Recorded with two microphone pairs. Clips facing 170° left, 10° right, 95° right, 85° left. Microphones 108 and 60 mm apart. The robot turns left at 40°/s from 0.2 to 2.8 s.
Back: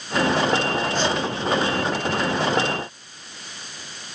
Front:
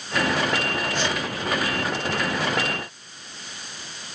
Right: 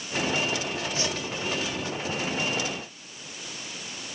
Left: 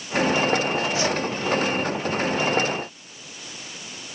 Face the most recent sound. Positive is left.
turn(degrees=-160)